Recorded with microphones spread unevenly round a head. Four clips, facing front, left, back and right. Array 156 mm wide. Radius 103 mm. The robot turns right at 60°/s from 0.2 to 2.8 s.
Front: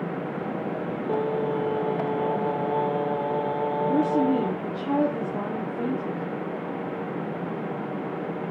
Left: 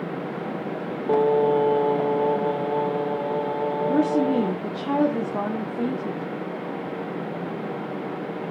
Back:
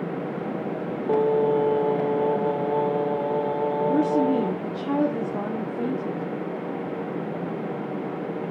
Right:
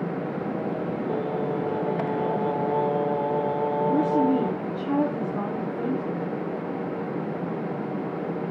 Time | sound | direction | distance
1.1 | singing | 100° left | 1.0 m
3.9 | a woman speaking | 170° left | 1.5 m